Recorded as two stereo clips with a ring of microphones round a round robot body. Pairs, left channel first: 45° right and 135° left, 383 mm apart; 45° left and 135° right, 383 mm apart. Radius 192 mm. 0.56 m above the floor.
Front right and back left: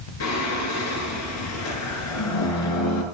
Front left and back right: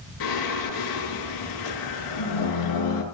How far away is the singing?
About 7.5 m.